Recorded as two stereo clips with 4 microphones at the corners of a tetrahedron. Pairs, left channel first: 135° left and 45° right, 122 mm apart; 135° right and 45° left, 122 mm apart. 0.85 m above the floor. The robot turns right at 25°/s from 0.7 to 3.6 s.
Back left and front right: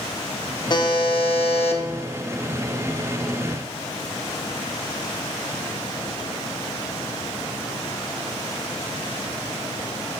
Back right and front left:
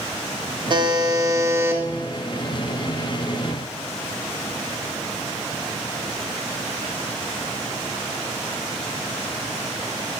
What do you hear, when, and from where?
0.7 s a buzzer: 85° left, 0.6 m; by 1.8 s 115° left, 0.6 m